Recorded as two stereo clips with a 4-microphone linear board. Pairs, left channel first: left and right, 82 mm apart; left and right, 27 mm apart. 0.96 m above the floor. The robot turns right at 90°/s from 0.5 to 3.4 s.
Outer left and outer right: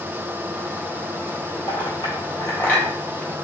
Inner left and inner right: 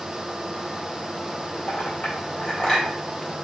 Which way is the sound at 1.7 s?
65° left (ahead or behind).